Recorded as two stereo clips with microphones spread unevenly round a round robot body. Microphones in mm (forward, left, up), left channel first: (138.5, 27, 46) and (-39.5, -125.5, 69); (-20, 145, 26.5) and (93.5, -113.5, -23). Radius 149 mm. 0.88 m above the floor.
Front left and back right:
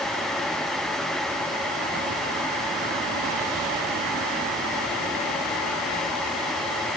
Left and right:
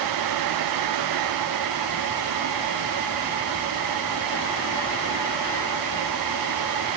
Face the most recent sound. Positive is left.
No sound to turn to.